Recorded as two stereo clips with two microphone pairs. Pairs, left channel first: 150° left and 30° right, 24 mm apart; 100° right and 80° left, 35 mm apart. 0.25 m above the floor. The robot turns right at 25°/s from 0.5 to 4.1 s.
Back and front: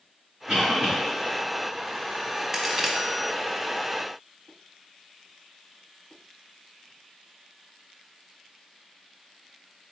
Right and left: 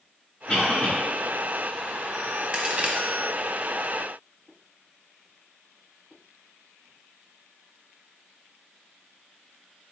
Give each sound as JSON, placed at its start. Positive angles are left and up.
{"t": 0.5, "sound": "a cough", "azimuth_deg": -75, "distance_m": 2.0}
{"t": 2.5, "sound": "a crack", "azimuth_deg": 30, "distance_m": 0.8}